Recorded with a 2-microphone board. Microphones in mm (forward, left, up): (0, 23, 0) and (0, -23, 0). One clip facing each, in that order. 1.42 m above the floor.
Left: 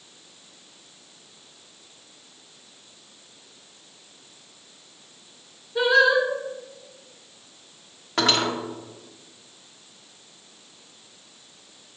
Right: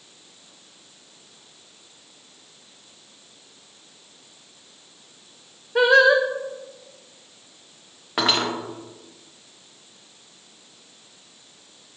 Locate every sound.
5.8 s singing: 65° right (ahead or behind), 0.6 m
8.2 s cutlery clinking: 10° right (ahead or behind), 0.7 m